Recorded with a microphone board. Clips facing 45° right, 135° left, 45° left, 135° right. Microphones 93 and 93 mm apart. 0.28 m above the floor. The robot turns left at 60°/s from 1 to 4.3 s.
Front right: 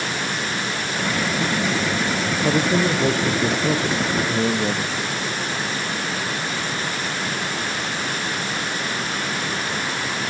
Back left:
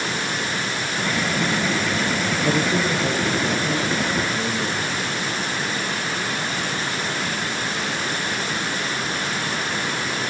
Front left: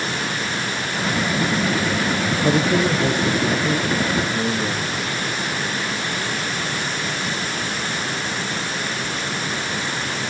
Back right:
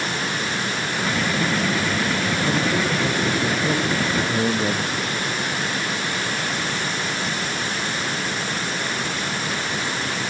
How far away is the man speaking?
About 5.5 m.